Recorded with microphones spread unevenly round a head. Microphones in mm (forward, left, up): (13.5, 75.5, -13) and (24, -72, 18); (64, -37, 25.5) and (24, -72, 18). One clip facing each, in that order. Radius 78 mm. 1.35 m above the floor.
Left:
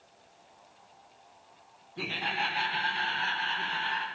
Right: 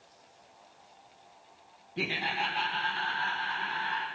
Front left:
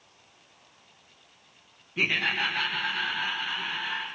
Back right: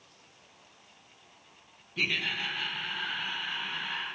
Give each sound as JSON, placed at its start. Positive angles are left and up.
{"t": 2.0, "sound": "laughter", "azimuth_deg": -20, "distance_m": 0.5}